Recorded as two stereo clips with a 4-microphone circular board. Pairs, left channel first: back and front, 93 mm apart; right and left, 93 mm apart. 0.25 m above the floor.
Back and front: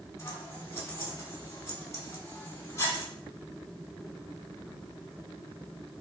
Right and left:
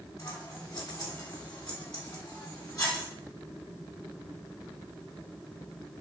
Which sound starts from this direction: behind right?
Scissors, at 0.2 s.